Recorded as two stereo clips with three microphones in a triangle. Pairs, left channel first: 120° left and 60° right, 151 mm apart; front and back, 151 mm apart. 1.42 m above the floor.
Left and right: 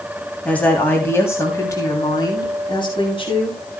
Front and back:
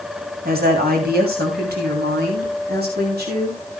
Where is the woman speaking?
160° right, 3 m; by 3.6 s 175° left, 3.5 m.